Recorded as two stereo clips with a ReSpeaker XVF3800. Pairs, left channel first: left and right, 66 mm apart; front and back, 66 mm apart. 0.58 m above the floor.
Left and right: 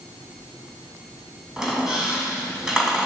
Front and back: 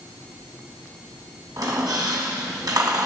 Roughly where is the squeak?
Behind.